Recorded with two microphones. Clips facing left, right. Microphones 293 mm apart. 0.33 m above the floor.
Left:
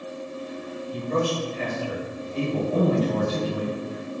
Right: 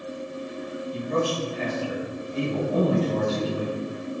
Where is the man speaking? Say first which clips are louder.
Left 1 dB; 45° left (ahead or behind), 1.3 m; by 3.8 s 10° right (ahead or behind), 1.4 m.